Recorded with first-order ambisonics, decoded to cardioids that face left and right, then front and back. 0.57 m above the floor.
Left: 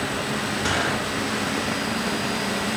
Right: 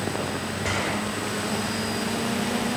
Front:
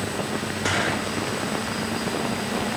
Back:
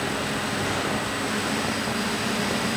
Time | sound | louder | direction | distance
0.6 | a gunshot | left 3 dB, front 2 dB | 50° left | 7.5 m